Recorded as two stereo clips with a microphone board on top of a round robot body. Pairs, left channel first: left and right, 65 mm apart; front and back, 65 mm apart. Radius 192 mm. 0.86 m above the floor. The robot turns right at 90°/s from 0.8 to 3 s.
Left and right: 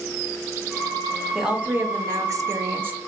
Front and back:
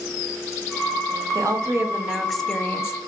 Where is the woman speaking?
175° right, 1.2 m; by 3.0 s 30° right, 1.2 m.